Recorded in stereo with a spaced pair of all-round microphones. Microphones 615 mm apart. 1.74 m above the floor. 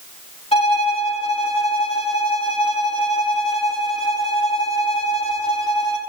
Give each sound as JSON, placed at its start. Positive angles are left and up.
{"t": 0.5, "sound": "a violin", "side_deg": 10, "distance_m": 2.5}